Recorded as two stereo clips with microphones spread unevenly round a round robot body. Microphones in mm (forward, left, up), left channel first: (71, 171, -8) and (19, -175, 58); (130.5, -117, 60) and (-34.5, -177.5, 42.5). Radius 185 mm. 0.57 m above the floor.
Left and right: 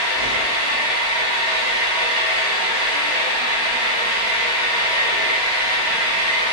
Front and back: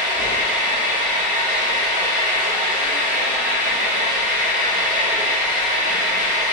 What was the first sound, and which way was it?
An engine running, 145° right.